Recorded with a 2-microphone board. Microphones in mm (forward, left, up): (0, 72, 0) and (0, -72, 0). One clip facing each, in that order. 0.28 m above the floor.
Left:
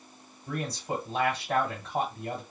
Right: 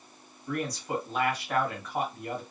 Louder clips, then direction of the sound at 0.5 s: Right 1 dB; 25° left (ahead or behind).